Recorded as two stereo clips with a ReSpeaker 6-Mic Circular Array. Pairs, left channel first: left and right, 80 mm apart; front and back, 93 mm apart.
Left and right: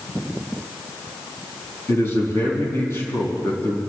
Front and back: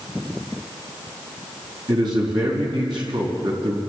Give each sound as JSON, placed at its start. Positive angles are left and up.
{"t": 1.9, "sound": "a man speaking", "azimuth_deg": 150, "distance_m": 4.5}